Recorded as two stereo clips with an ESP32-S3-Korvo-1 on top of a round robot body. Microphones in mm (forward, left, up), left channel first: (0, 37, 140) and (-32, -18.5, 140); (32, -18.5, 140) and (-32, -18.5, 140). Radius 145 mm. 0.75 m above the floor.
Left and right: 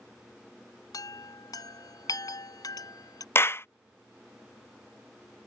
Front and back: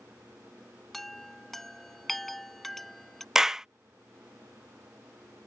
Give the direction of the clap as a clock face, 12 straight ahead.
9 o'clock.